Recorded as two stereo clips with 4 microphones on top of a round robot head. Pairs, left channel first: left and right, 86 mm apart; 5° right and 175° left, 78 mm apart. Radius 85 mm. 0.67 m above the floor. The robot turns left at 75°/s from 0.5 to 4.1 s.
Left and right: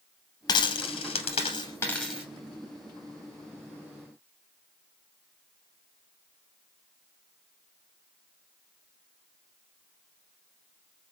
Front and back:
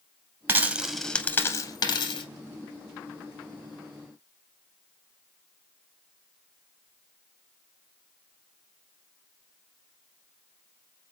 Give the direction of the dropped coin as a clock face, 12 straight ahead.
8 o'clock.